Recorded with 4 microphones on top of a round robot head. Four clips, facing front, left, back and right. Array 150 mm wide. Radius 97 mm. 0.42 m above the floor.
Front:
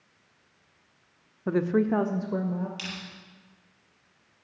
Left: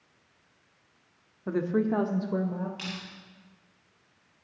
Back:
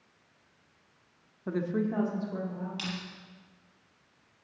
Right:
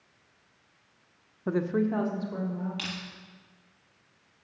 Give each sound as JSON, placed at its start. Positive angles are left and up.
{"t": 1.5, "sound": "a woman speaking", "azimuth_deg": -30, "distance_m": 0.9}
{"t": 2.8, "sound": "crushing", "azimuth_deg": -105, "distance_m": 4.5}